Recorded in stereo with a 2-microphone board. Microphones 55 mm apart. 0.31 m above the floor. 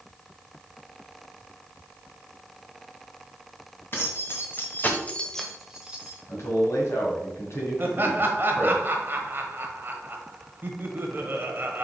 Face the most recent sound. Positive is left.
turn(degrees=-40)  # may be behind; listen again after turning